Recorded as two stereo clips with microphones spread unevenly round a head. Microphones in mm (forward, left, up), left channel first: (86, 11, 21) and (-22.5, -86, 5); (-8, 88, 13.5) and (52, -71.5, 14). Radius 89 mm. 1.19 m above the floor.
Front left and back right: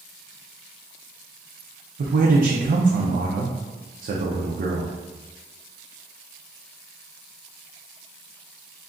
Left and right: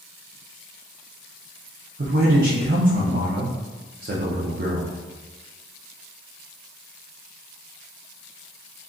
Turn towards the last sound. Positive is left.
turn(degrees=-115)